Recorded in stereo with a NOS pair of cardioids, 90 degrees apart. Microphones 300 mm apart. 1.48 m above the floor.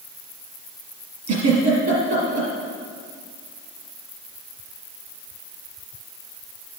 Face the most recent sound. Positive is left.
turn(degrees=-65)